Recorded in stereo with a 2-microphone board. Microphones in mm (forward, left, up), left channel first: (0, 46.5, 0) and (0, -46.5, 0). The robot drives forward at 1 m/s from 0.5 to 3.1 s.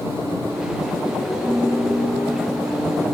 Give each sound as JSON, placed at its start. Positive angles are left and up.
{"t": 1.4, "sound": "a piano", "side_deg": 0}